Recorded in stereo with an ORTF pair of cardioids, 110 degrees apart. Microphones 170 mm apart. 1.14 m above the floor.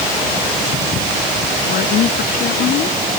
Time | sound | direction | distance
1.7 | a woman speaking | 65° left | ?